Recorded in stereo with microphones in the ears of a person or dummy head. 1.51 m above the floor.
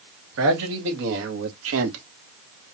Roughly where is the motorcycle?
I don't hear a motorcycle.